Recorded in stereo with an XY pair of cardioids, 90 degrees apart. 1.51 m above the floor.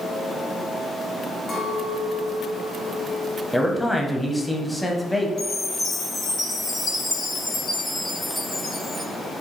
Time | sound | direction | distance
1.5 | a clink | 60° left | 1.4 m
3.5 | a man speaking | 5° left | 1.0 m
5.4 | a chime | 55° left | 2 m